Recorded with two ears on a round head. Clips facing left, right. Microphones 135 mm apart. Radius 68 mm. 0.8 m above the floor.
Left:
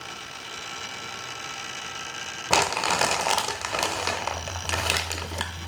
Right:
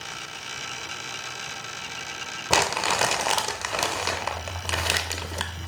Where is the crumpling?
Centre (ahead or behind), 0.7 m.